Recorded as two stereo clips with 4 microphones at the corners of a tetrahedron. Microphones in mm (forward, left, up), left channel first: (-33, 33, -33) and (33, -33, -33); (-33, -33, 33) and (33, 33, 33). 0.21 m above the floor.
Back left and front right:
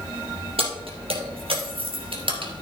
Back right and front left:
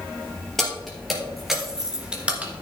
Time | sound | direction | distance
0.6 | keys jangling | 50° right | 3.5 m